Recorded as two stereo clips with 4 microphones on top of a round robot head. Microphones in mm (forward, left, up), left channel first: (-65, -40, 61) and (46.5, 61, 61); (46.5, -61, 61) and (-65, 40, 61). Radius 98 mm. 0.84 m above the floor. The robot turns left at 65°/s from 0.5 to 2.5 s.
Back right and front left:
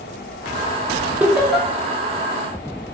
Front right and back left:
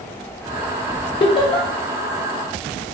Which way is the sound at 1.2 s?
30° right.